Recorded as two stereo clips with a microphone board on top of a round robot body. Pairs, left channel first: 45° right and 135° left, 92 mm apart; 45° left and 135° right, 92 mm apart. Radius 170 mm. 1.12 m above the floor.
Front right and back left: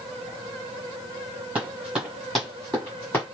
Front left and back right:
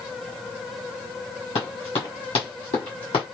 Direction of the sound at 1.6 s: 60° left.